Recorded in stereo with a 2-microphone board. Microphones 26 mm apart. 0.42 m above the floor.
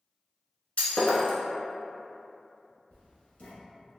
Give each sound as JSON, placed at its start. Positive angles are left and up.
{"t": 0.8, "sound": "breaking glass", "side_deg": 55, "distance_m": 0.7}
{"t": 2.9, "sound": "writing", "side_deg": 75, "distance_m": 0.8}